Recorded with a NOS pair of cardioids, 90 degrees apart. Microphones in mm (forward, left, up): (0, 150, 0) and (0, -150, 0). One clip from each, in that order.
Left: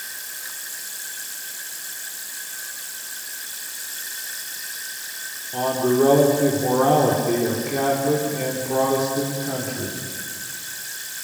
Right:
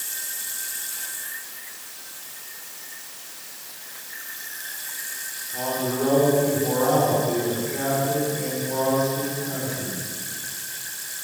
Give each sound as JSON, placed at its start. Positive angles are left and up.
{"t": 5.5, "sound": "a man speaking", "azimuth_deg": 65, "distance_m": 5.5}